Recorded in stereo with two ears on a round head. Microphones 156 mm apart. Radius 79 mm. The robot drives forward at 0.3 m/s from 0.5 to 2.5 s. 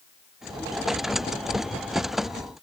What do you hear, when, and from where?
Only background noise.